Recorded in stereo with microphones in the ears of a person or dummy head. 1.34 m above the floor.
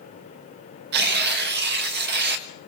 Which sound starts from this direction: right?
Tearing paper, at 0.9 s.